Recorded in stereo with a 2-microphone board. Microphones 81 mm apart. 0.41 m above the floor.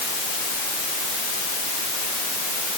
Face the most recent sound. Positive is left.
No sound to turn to.